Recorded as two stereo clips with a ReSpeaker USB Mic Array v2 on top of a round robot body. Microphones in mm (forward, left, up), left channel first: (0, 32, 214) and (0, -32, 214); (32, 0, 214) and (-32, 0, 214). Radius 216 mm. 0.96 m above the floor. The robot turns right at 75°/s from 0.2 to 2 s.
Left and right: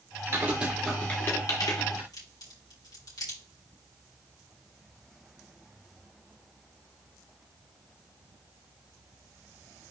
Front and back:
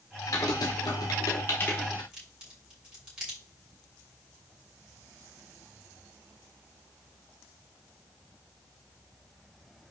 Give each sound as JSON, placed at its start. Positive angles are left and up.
{"t": 0.3, "sound": "typing on a keyboard", "azimuth_deg": -35, "distance_m": 1.2}
{"t": 2.1, "sound": "a crack", "azimuth_deg": 105, "distance_m": 5.0}